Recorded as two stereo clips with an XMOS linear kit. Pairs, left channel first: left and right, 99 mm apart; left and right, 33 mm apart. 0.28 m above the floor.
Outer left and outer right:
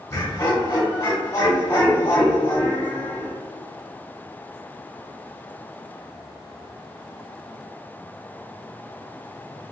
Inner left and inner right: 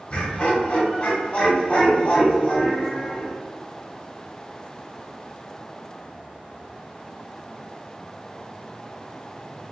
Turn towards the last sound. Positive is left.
turn(degrees=30)  # may be behind; listen again after turning